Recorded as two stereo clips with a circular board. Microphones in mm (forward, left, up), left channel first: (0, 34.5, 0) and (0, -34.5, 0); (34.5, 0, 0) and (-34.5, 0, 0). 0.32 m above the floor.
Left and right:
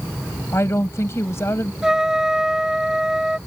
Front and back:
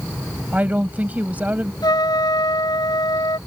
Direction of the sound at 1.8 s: 5° right.